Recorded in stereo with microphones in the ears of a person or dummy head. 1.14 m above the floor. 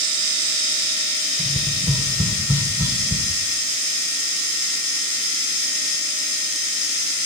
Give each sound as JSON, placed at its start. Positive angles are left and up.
{"t": 1.4, "sound": "tapping", "side_deg": -20, "distance_m": 2.0}